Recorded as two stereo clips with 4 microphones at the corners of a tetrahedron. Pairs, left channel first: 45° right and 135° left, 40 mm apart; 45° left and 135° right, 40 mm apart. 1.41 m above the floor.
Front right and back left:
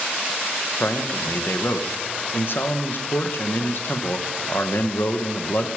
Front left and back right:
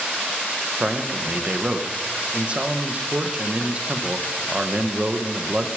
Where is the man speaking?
75° right, 1.3 m.